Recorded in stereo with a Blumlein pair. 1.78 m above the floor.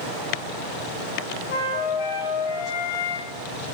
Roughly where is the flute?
Ahead left.